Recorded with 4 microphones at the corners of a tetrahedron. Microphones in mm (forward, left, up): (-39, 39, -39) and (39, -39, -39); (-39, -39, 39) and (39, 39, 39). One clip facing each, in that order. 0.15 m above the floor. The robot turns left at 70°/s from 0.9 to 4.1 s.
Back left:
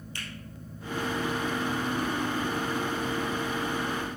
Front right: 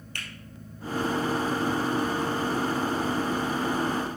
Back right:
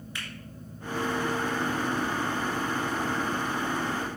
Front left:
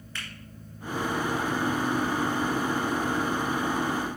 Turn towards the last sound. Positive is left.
turn(degrees=80)